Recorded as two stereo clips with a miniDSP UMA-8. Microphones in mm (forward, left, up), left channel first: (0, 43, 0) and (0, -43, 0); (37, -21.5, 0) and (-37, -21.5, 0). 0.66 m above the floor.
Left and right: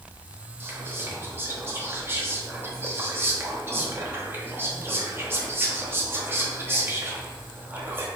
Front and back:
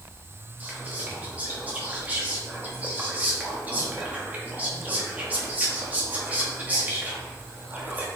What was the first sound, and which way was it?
Whispering, 130° right.